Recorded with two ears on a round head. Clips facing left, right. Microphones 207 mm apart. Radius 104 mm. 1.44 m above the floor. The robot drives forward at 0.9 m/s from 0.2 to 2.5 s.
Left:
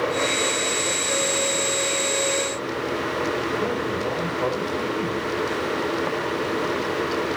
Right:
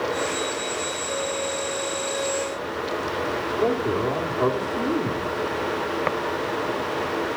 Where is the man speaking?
80° right, 3.5 m.